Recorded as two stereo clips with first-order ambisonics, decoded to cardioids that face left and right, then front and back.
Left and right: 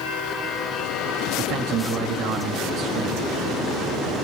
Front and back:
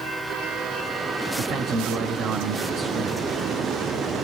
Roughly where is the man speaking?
Behind right.